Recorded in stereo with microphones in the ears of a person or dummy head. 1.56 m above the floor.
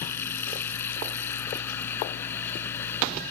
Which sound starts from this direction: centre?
Running water, at 0.0 s.